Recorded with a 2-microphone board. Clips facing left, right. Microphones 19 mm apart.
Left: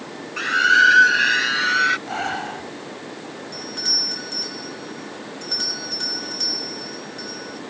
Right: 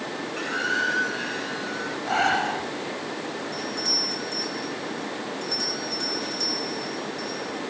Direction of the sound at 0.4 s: 30° left (ahead or behind).